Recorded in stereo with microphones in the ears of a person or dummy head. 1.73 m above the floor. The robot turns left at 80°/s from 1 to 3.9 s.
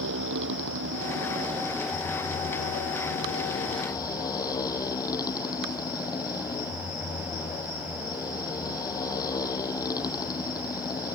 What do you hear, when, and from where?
0.0 s a motorcycle: 110° right; by 11.2 s 20° left